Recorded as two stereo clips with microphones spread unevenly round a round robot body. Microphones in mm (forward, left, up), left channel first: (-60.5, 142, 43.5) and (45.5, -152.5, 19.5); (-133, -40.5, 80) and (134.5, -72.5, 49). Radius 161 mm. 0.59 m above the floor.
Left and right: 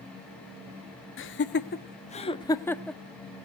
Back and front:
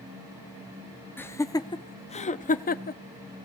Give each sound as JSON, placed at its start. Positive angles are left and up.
{"t": 1.2, "sound": "laughter", "azimuth_deg": 85, "distance_m": 1.1}